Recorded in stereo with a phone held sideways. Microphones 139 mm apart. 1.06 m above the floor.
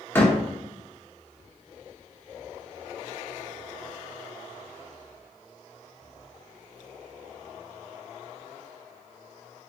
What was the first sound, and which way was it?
A door slam, 15° left (ahead or behind).